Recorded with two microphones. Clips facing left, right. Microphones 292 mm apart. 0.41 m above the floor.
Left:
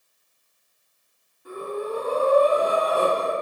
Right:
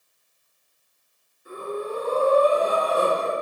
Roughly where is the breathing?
Left.